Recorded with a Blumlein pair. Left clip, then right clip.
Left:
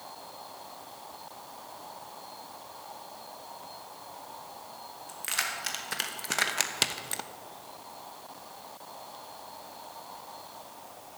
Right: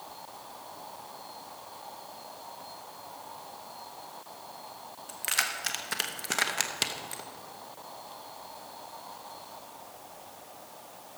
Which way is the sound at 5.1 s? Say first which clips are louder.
Right 2 dB; 10° right.